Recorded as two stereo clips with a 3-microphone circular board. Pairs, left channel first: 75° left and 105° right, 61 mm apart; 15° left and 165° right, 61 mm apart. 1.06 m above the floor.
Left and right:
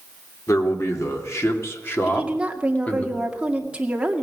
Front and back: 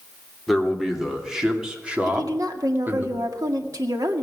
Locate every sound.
0.5 s a man speaking: 105° left, 2.5 m; by 3.1 s 140° left, 2 m
2.1 s a woman speaking: 175° right, 1.9 m